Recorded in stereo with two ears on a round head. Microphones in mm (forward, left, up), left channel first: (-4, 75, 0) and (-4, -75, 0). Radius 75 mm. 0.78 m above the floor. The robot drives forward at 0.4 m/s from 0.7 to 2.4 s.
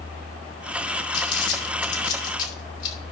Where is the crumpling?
70° left (ahead or behind), 3.5 m; by 3.0 s 75° left (ahead or behind), 3.5 m.